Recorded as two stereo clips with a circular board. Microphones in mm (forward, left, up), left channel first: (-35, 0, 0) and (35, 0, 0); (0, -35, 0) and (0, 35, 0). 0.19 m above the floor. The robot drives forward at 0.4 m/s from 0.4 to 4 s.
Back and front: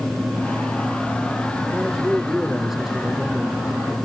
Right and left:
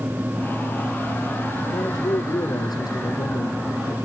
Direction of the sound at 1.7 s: 80° right.